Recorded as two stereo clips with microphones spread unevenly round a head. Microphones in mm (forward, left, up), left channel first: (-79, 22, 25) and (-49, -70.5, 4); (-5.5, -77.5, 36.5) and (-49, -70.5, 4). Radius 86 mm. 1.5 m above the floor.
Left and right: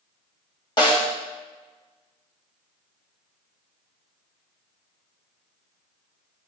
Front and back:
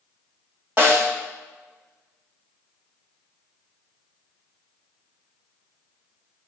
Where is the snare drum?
65° left, 1.4 m.